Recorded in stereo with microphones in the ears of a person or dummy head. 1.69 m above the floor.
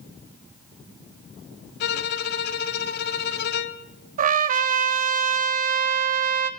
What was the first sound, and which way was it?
A violin, 60° left (ahead or behind).